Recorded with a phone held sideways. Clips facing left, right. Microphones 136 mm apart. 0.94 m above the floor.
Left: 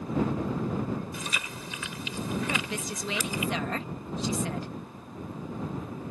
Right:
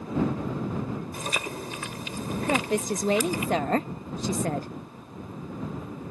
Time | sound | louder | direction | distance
1.1 | chewing | right 5 dB | 50° right (ahead or behind) | ?
2.5 | a woman speaking | right 8 dB | 45° right (ahead or behind) | ?